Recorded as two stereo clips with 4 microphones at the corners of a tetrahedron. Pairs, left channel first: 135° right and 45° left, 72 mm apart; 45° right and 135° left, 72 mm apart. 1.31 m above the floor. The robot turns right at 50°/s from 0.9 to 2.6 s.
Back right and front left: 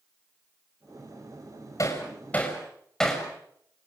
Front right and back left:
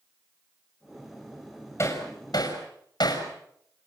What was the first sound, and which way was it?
Hammering, 95° right.